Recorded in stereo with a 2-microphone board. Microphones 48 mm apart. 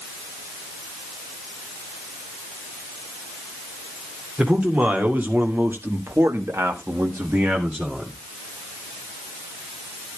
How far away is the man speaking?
About 3 m.